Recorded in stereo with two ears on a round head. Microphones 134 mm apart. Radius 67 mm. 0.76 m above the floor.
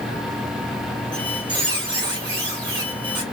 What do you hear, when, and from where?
1.1 s a squeak: 35° right (ahead or behind), 1.5 m